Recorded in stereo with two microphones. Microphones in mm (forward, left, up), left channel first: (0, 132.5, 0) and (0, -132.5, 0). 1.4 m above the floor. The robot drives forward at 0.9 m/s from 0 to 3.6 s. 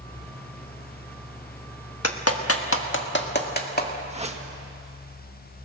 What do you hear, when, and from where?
2.0 s a clap: 70° left (ahead or behind), 1.3 m; by 4.0 s 35° left (ahead or behind), 2 m
4.1 s a whoosh: 25° right (ahead or behind), 1.6 m